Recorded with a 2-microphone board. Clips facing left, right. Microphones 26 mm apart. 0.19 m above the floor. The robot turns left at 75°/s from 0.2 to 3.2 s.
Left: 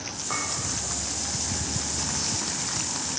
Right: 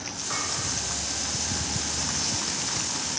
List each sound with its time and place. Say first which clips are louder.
0.3 s a clink: left 1 dB; 55° left (ahead or behind), 3 m; by 0.5 s 65° left (ahead or behind), 3 m